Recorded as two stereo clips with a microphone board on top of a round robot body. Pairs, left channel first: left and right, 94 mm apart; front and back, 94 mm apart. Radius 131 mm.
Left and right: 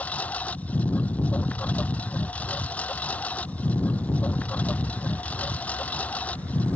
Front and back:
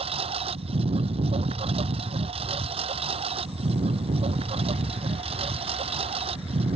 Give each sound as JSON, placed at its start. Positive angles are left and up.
{"t": 0.0, "sound": "a lawn mower", "azimuth_deg": 165}